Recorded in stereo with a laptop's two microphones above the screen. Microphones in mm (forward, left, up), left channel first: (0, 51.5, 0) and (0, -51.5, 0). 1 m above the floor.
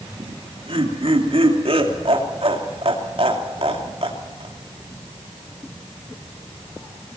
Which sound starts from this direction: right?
Laughter, at 0.2 s.